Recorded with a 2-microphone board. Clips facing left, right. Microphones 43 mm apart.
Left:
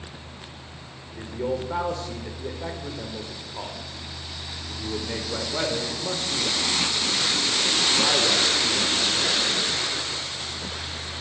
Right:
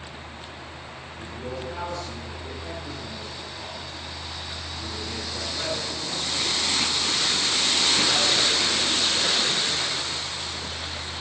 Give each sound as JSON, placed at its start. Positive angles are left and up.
{"t": 1.1, "sound": "a man speaking", "side_deg": 65, "distance_m": 3.0}